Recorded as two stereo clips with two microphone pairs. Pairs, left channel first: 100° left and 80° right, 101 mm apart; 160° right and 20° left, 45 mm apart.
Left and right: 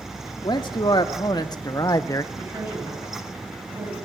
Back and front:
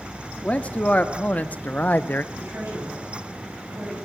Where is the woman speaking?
15° right, 7.5 m.